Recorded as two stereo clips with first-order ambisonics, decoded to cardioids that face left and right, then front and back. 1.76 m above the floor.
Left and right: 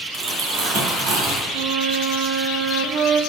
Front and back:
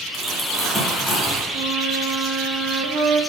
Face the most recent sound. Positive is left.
turn(degrees=-125)